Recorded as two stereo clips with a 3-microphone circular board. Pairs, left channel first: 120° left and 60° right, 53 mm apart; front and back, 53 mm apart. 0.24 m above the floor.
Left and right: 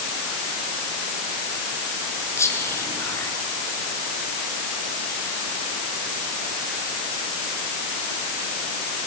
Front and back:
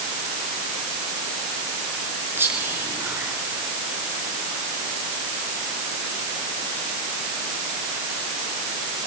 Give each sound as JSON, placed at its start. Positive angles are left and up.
{"t": 2.4, "sound": "whispering", "azimuth_deg": 140, "distance_m": 3.5}